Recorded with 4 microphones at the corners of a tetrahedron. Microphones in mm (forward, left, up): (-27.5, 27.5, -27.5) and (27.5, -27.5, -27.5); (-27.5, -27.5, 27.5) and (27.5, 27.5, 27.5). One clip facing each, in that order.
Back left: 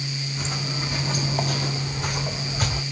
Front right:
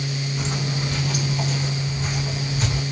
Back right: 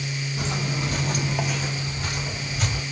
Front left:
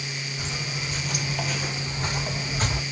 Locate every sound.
0.4 s footsteps: 125° right, 1.1 m; by 2.8 s 95° left, 1.7 m